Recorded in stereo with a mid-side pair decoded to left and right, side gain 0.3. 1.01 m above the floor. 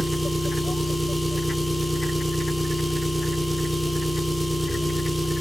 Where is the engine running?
5° right, 1.3 m.